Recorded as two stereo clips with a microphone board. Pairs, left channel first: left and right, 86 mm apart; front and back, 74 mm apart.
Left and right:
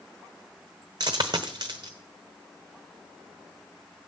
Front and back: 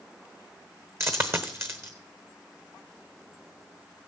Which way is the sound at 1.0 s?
125° right.